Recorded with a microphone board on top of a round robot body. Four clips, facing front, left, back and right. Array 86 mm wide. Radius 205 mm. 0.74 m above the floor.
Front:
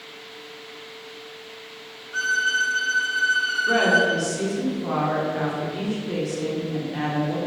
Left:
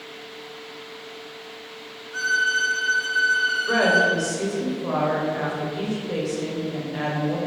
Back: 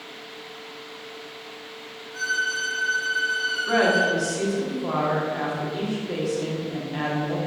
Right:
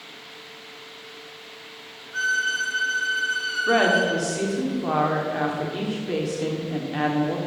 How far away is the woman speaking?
About 3.5 m.